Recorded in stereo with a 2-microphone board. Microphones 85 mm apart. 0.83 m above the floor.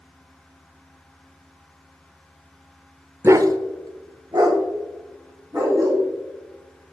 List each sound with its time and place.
3.2 s a dog barking: 30° right (ahead or behind), 0.5 m; by 6.0 s 40° right (ahead or behind), 3 m